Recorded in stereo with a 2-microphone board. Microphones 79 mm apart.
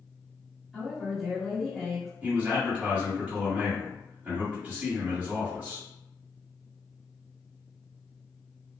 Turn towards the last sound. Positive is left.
turn(degrees=-20)  # may be behind; listen again after turning